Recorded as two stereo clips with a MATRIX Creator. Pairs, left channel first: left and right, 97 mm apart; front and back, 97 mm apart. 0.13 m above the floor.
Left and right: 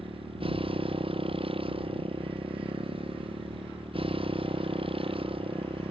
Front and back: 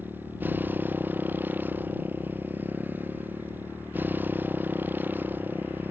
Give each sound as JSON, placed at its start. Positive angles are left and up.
{"t": 0.0, "sound": "a motorcycle", "azimuth_deg": -110}